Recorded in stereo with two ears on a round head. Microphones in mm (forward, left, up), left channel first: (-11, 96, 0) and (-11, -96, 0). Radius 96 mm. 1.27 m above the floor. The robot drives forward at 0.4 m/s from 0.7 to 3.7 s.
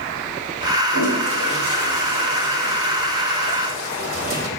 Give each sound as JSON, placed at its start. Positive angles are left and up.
{"t": 0.9, "sound": "a toilet flushing", "side_deg": -60, "distance_m": 3.0}